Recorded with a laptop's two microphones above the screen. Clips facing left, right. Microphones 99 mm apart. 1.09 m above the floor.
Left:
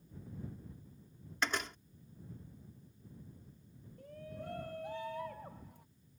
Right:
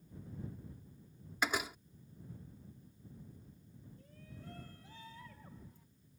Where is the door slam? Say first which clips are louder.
Right 1 dB; 5° right (ahead or behind).